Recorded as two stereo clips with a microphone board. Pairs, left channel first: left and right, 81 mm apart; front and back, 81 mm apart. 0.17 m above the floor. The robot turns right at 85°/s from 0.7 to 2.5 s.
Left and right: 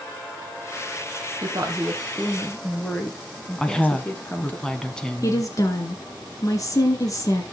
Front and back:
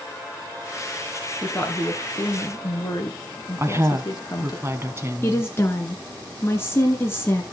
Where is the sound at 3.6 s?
160° left, 1.4 m.